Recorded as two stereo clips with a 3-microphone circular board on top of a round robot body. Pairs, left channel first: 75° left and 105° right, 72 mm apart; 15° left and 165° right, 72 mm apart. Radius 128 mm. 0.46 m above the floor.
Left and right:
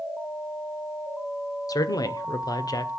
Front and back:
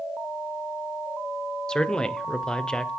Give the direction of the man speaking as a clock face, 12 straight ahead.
9 o'clock.